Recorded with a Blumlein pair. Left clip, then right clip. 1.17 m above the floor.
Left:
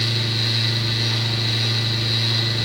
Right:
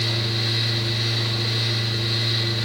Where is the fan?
20° left, 1.4 m.